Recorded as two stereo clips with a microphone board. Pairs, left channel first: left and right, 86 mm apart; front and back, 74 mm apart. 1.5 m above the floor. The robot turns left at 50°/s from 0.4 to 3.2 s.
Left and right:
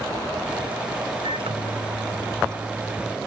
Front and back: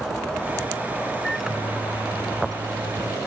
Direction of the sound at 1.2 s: 85° right.